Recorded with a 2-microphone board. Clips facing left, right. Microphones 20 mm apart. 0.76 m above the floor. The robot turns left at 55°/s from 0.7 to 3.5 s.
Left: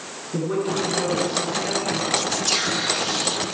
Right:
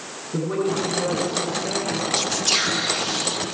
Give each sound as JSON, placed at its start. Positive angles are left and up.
{"t": 0.3, "sound": "a woman speaking", "azimuth_deg": 180, "distance_m": 7.5}
{"t": 2.1, "sound": "whispering", "side_deg": -15, "distance_m": 0.9}